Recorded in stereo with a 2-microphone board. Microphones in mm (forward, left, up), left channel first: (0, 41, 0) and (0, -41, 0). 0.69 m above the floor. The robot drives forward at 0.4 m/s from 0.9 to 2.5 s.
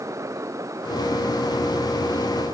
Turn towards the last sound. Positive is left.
No sound to turn to.